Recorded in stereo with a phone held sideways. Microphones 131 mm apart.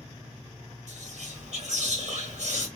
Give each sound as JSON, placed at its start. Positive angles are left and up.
{"t": 0.9, "sound": "whispering", "side_deg": -65, "distance_m": 1.7}